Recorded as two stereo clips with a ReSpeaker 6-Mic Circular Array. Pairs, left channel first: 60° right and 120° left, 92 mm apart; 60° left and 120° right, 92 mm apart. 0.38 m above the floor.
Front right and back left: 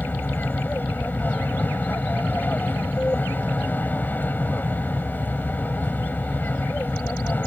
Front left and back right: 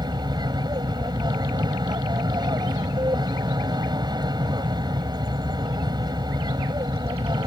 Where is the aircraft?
125° right.